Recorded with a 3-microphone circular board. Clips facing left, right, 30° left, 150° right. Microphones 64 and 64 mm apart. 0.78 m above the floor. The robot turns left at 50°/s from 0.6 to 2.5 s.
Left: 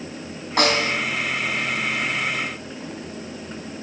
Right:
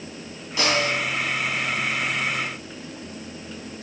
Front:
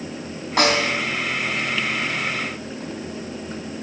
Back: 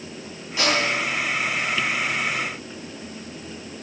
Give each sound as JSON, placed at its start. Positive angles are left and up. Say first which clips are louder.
{"t": 0.6, "sound": "a snare drum", "louder": "left 2 dB, front 3 dB", "azimuth_deg": 55, "distance_m": 4.0}